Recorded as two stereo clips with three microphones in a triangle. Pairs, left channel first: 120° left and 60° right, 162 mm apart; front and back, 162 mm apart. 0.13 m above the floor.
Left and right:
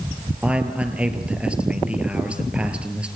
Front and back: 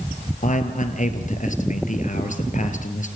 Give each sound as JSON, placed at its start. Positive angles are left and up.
{"t": 0.4, "sound": "a man speaking", "azimuth_deg": 20, "distance_m": 3.0}